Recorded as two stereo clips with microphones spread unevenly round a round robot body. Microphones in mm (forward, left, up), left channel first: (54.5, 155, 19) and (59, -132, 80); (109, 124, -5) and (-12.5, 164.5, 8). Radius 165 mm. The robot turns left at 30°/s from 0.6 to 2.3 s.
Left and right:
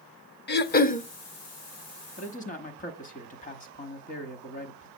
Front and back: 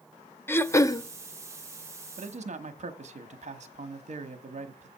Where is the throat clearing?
50° left, 0.7 m; by 1.1 s 35° left, 0.7 m.